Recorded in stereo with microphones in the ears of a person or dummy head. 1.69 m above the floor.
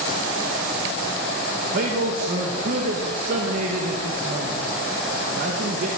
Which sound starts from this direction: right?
A man speaking, at 1.6 s.